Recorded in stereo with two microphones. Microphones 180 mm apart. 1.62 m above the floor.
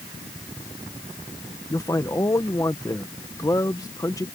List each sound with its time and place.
1.7 s a man speaking: 20° left (ahead or behind)